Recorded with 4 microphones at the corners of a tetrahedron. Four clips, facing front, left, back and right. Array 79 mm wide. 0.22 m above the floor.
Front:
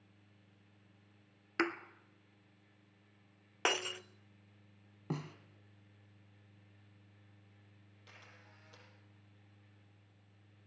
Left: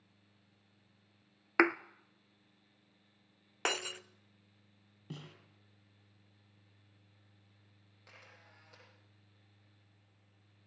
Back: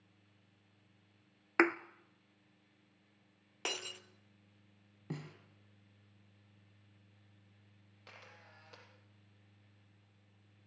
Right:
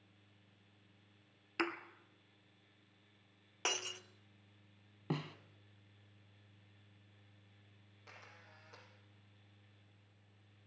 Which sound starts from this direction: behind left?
A thud, at 1.6 s.